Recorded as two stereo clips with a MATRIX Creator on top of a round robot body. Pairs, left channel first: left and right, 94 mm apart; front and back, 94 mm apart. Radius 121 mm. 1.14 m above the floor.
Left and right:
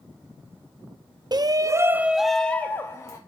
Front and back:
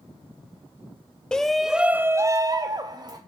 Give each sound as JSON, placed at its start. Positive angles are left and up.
{"t": 1.3, "sound": "a shout", "azimuth_deg": -80, "distance_m": 0.6}